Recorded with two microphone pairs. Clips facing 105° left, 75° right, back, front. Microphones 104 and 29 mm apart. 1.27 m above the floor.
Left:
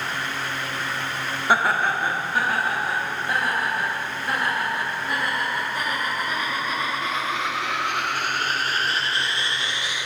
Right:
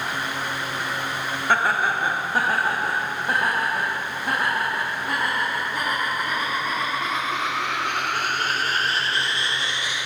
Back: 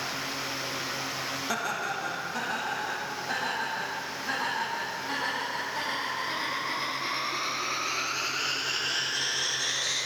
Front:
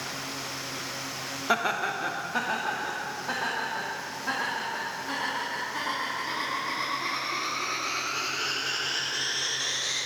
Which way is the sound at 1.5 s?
30° left.